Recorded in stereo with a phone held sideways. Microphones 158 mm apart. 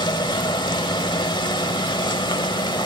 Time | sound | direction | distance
0.0 | a machine running | 30° left (ahead or behind) | 1.2 m